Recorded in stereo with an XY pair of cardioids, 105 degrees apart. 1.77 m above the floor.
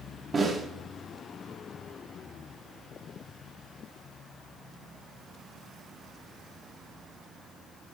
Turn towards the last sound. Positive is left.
turn(degrees=-35)